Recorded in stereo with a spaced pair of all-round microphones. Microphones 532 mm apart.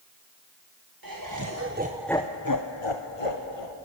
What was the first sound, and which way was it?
Laughter, 40° right (ahead or behind).